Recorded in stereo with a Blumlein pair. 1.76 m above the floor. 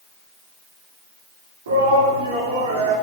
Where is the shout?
60° right, 4 m; by 2.9 s 65° right, 5 m.